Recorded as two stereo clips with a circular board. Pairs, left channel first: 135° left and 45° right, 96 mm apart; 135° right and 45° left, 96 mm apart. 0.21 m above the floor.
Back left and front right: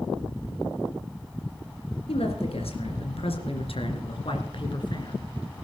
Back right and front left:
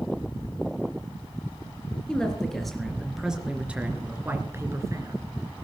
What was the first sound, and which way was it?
A man speaking, 145° left.